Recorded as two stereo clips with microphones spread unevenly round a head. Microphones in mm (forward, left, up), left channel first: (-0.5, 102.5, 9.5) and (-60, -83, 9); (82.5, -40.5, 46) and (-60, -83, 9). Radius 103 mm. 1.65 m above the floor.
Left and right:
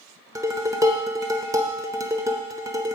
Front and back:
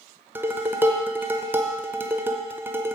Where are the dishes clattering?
75° right, 0.6 m.